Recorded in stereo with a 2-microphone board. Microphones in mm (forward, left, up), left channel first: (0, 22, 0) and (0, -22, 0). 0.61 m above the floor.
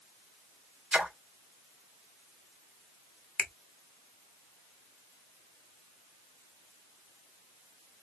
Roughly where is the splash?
Right.